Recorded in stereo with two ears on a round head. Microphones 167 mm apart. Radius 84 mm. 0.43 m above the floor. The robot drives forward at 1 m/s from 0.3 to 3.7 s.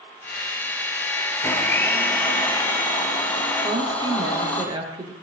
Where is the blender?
15° left (ahead or behind), 3.5 m; by 4.6 s 10° left (ahead or behind), 5.5 m.